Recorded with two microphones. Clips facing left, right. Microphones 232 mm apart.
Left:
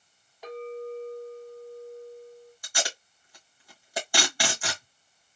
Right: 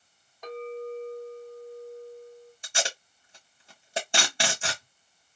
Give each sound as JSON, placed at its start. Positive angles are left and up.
{"t": 0.4, "sound": "a clink", "side_deg": 5, "distance_m": 2.5}
{"t": 2.6, "sound": "tape being pulled", "side_deg": -25, "distance_m": 1.8}